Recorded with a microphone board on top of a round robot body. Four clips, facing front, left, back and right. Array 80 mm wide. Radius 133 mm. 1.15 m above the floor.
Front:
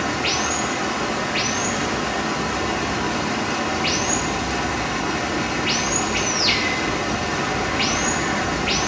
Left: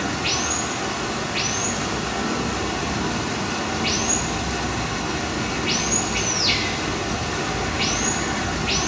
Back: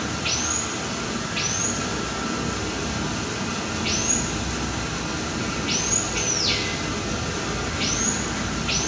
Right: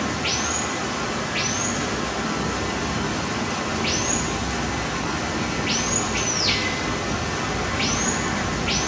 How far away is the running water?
About 1.0 m.